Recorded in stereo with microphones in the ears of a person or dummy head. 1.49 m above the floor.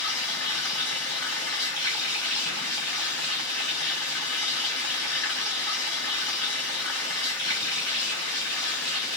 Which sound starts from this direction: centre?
Running water, at 0.0 s.